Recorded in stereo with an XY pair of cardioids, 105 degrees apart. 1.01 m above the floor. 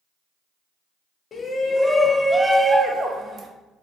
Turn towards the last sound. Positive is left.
turn(degrees=-45)